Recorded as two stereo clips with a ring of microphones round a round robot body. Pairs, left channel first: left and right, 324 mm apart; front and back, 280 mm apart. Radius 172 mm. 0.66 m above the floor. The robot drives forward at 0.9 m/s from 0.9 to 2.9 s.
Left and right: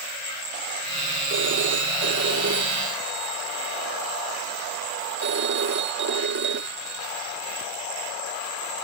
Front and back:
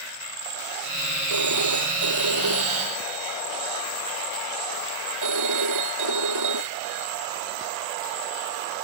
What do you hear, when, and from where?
1.3 s a phone ringing: 145° right